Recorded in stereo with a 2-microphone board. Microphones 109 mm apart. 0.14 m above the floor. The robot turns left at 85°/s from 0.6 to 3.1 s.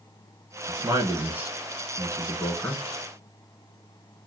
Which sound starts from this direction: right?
A man speaking, at 0.7 s.